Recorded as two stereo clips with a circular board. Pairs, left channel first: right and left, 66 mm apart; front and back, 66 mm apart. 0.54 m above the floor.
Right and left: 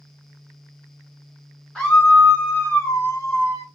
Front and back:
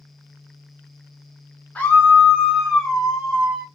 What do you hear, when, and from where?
1.8 s a scream: 25° right, 1.0 m; by 3.6 s 105° right, 1.4 m